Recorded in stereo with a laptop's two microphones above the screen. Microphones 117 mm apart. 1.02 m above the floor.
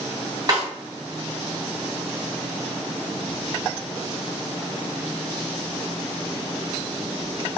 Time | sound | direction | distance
0.5 | a snare drum | 35° right (ahead or behind) | 1.3 m